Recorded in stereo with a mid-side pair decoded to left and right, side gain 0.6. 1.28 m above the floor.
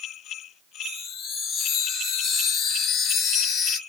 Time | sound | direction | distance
0.8 | a chime | 50° left | 1.1 m